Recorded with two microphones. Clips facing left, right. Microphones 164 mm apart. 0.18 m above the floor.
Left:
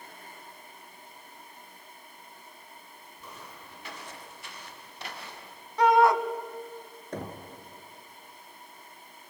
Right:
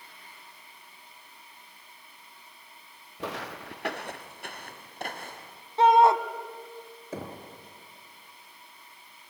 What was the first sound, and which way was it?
Footsteps, 80° right.